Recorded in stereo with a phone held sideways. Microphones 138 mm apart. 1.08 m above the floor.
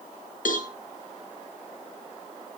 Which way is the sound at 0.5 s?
75° left (ahead or behind).